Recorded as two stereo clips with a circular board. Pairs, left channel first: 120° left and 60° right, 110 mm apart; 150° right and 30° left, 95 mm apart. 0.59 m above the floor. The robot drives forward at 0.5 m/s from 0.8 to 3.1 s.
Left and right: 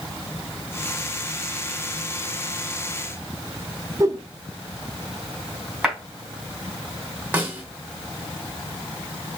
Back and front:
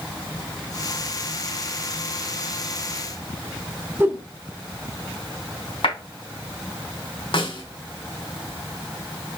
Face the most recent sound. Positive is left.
turn(degrees=-135)